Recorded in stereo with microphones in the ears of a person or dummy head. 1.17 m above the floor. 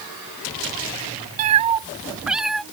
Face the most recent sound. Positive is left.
turn(degrees=5)  # may be behind; listen again after turning